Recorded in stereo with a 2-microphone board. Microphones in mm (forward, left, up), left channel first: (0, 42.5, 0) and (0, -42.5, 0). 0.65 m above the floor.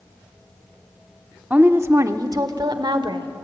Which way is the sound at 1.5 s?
15° right (ahead or behind).